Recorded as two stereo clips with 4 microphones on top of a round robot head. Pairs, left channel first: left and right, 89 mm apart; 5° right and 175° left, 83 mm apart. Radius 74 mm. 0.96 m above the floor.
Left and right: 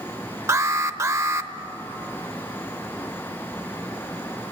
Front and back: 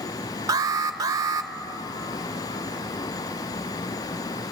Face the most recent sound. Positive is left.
turn(degrees=-140)